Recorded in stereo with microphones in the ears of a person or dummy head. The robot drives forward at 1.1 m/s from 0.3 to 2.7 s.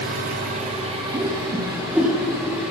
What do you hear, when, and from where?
0.0 s an engine running: 55° right (ahead or behind), 1.1 m; by 2.7 s 15° right (ahead or behind), 3.5 m
1.1 s a whoosh: 30° right (ahead or behind), 0.7 m; by 2.1 s 10° right (ahead or behind), 1.8 m